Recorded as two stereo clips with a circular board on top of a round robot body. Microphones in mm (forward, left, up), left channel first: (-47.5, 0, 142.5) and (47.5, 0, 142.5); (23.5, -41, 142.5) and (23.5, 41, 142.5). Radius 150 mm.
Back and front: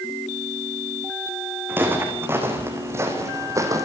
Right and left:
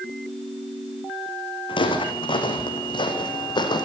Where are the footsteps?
70° right, 4 m; by 3.9 s 60° right, 3 m.